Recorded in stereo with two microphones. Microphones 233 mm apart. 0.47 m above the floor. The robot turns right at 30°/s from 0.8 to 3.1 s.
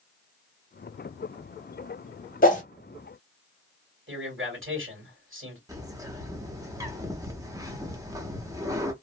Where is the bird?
15° right (ahead or behind), 0.7 m.